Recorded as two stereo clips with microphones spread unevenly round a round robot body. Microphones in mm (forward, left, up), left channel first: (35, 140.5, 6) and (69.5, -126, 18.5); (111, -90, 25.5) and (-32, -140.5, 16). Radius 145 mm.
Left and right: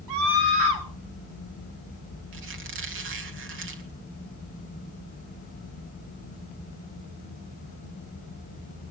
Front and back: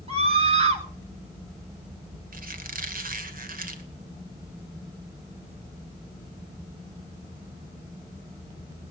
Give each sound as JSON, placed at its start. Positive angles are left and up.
{"t": 0.1, "sound": "a scream", "azimuth_deg": -110, "distance_m": 3.5}
{"t": 2.3, "sound": "a squeak", "azimuth_deg": -135, "distance_m": 1.9}